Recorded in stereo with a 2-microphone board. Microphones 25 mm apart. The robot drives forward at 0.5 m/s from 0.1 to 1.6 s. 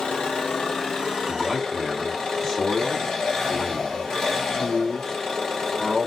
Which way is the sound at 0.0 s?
55° left (ahead or behind).